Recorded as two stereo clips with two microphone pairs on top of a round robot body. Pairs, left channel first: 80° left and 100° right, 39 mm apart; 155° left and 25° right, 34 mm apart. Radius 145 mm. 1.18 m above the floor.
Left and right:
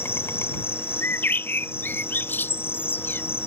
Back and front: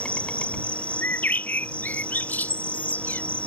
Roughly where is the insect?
Left.